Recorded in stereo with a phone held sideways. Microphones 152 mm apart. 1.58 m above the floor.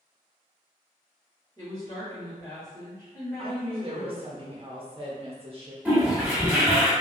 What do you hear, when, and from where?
1.6 s a woman speaking: 30° left (ahead or behind), 1.9 m
3.4 s a woman speaking: 40° right (ahead or behind), 0.8 m
5.8 s a toilet flushing: 10° right (ahead or behind), 1.2 m